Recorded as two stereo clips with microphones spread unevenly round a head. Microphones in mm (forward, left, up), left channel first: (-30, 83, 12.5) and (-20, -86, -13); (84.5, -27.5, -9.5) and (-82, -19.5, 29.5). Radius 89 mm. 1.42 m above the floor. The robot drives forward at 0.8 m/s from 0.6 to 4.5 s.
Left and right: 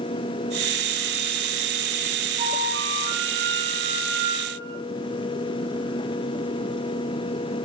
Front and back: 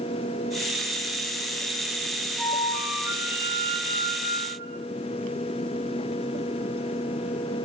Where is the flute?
105° right, 1.4 m; by 4.8 s 160° right, 2.5 m.